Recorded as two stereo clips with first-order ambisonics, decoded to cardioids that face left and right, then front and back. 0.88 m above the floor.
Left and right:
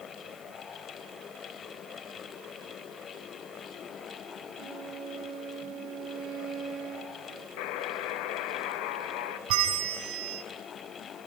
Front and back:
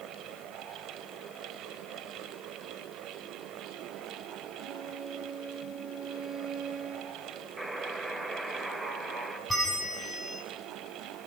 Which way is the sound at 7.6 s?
100° left.